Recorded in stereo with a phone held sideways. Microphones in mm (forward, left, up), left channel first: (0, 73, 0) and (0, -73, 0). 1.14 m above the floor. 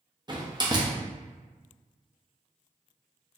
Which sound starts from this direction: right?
A door slam, at 0.3 s.